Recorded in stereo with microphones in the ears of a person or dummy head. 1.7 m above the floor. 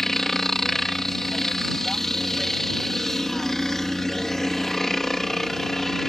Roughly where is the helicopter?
Centre.